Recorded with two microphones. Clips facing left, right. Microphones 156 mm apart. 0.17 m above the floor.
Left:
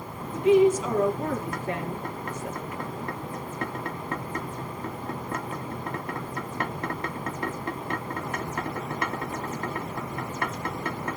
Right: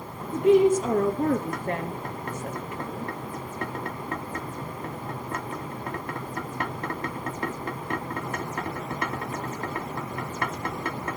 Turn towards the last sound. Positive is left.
turn(degrees=-50)  # may be behind; listen again after turning